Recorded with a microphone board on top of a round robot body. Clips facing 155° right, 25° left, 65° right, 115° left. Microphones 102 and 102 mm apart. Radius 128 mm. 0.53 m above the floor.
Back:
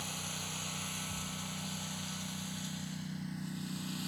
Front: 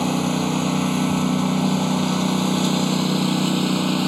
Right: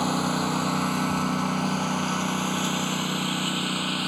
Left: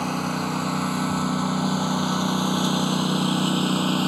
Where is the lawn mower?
20° left; by 4.1 s 50° left.